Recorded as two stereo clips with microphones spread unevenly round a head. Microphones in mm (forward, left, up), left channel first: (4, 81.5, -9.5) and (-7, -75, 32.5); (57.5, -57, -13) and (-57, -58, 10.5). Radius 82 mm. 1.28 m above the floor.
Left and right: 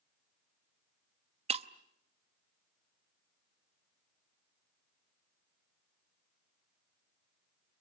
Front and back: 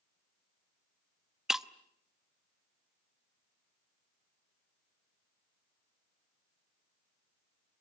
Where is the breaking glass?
105° right, 0.8 m.